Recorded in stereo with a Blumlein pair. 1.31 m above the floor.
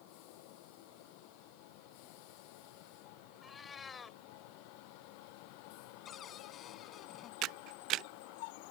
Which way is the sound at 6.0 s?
25° left.